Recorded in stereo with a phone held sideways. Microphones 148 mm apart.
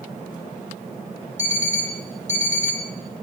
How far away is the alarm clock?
About 1.3 m.